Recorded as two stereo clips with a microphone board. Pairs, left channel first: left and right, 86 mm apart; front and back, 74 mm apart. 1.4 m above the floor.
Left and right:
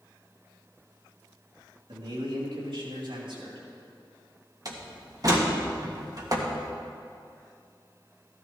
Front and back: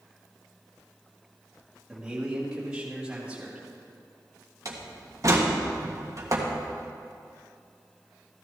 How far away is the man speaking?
About 3.5 m.